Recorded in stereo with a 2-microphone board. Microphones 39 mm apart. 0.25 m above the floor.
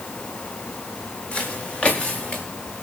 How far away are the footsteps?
About 4 m.